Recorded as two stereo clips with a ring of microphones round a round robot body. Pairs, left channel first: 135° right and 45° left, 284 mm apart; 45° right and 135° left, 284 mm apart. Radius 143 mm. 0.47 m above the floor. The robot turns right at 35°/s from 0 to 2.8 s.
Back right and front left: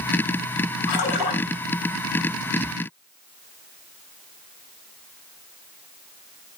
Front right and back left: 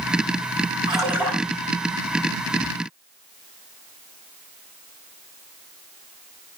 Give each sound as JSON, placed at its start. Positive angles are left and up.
{"t": 0.9, "sound": "a splash", "azimuth_deg": -150, "distance_m": 7.5}